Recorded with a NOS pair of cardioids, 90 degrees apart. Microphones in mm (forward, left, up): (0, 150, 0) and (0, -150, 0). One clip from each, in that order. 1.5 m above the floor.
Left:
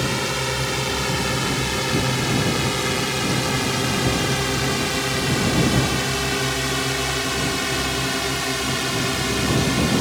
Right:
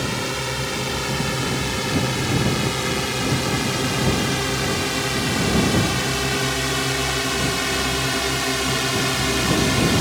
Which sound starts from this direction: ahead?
A drone, at 0.0 s.